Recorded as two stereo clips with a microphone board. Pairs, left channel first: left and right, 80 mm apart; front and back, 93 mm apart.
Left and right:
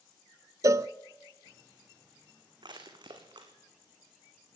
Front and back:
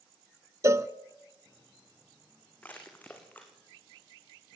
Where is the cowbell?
130° right, 0.6 m.